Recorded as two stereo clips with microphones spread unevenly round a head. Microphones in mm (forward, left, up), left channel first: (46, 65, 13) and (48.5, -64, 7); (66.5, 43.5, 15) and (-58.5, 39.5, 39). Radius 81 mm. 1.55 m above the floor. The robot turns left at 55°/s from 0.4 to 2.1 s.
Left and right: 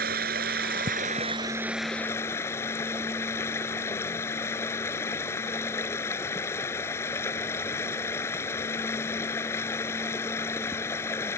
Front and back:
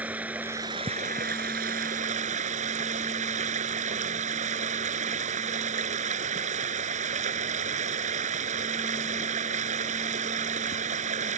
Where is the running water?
100° right; by 11.4 s 165° left.